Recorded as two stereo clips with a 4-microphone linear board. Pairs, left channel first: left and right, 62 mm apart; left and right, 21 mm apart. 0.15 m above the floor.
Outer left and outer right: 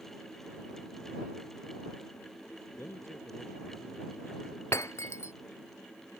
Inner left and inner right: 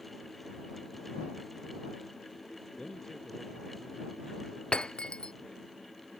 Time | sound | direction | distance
2.8 | a man speaking | 40° left (ahead or behind) | ?
4.7 | breaking glass | 50° left (ahead or behind) | ?